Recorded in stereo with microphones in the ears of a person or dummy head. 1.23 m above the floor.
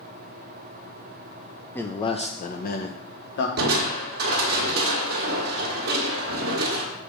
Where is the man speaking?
10° left (ahead or behind), 0.6 m; by 3.5 s 65° left (ahead or behind), 1.4 m.